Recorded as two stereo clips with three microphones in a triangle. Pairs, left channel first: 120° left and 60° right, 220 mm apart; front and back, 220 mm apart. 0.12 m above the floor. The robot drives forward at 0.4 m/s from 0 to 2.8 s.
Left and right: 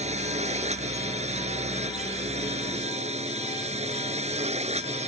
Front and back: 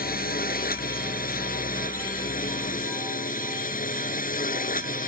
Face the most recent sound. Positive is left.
turn(degrees=-20)